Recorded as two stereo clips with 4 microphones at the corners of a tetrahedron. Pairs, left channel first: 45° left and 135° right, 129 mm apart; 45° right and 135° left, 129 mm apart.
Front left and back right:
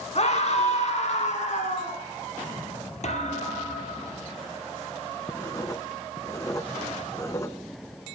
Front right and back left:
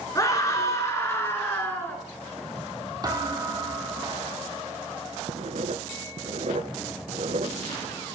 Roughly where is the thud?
Left.